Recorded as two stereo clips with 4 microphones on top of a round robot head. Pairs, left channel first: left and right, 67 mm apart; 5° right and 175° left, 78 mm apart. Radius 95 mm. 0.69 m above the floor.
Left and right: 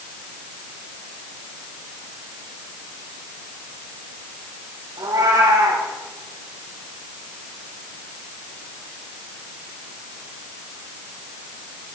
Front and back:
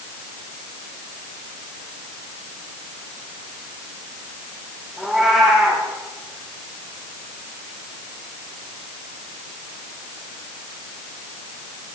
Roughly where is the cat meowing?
Right.